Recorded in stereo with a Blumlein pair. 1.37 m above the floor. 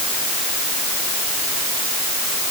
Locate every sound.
Only background noise.